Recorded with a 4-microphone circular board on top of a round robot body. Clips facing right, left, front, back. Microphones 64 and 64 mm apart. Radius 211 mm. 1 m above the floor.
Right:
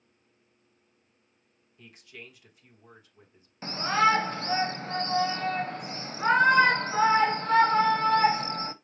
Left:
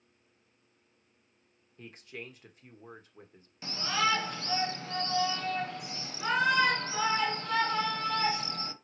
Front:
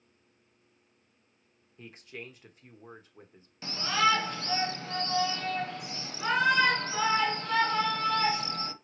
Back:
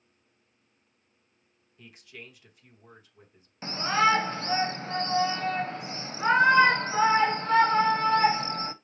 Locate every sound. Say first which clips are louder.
1.8 s a man speaking: left 3 dB, front 3 dB; 45° left, 1.3 m
3.6 s a shout: right 7 dB, back 3 dB; 130° right, 0.8 m